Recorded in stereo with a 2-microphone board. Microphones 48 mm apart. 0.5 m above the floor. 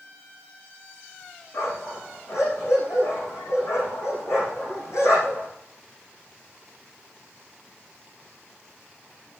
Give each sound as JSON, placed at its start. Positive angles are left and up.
{"t": 1.5, "sound": "a dog barking", "side_deg": 75, "distance_m": 8.5}